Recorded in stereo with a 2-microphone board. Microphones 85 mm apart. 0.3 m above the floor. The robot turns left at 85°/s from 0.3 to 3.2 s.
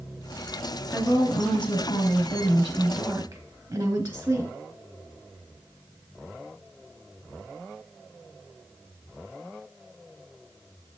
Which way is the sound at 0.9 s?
165° left.